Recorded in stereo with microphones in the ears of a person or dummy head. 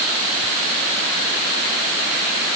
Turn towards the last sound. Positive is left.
No sound to turn to.